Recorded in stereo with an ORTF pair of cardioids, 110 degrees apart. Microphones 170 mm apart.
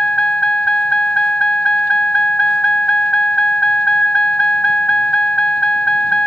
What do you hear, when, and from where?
0.0 s a vehicle: 5° left